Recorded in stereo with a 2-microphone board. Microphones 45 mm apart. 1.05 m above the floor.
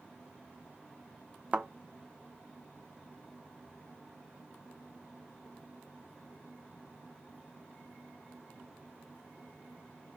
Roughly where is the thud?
Right.